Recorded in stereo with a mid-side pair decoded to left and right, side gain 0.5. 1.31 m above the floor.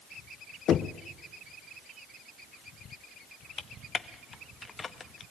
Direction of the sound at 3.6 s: 35° left.